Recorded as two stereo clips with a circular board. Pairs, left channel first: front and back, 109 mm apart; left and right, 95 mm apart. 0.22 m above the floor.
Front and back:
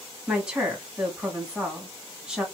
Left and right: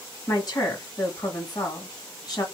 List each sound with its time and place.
0.3 s a woman speaking: 100° left, 1.9 m